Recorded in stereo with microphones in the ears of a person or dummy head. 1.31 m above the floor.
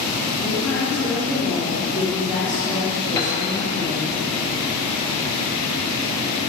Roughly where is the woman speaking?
Centre.